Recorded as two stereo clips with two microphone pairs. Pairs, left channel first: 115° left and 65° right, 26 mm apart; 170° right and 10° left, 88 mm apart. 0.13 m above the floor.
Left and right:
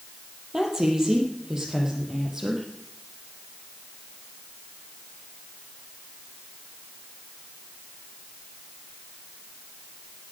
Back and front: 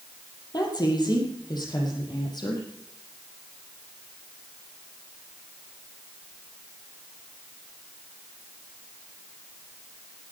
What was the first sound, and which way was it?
A woman speaking, 135° right.